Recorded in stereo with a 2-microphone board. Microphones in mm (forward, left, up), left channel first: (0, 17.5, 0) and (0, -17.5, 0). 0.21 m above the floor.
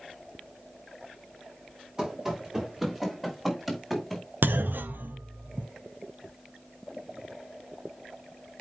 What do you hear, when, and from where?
2.0 s running footsteps: 20° right (ahead or behind), 4 m; by 4.2 s centre (ahead or behind), 4.5 m
4.4 s a clunk: 70° right (ahead or behind), 0.8 m